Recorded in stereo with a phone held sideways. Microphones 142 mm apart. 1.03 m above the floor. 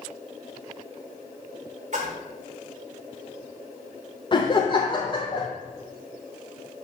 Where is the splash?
55° right (ahead or behind), 1.7 m.